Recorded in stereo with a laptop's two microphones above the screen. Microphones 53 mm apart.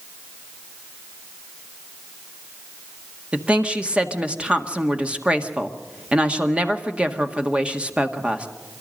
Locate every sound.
3.3 s a woman speaking: 20° right (ahead or behind), 1.7 m